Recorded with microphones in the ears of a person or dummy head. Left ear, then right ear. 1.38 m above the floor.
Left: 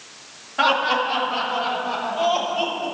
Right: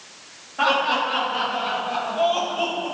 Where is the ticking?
No ticking in this recording.